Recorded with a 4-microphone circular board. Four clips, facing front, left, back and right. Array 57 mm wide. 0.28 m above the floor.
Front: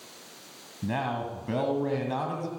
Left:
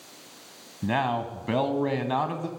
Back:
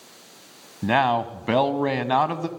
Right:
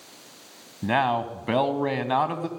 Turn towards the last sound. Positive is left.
turn(degrees=-160)